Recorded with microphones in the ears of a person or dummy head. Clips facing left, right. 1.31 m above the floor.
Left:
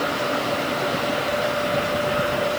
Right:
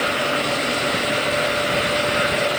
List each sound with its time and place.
Only background noise.